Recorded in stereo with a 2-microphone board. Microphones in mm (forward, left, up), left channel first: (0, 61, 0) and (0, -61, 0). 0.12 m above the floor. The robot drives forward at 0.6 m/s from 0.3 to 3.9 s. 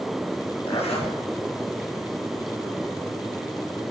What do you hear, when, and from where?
0.7 s a zipper: 55° left (ahead or behind), 2 m